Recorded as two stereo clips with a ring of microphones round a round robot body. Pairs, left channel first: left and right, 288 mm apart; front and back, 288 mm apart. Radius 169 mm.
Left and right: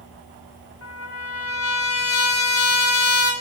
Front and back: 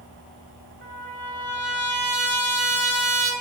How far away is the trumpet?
About 0.7 m.